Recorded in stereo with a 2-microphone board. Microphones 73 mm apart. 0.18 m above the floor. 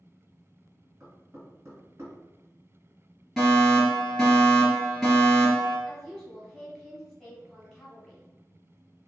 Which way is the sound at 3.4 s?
5° left (ahead or behind).